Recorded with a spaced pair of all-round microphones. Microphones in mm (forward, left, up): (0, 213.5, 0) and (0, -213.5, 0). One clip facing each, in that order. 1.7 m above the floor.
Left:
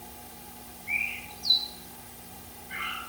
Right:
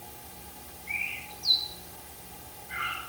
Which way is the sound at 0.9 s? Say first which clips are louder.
Left 2 dB; 70° left (ahead or behind).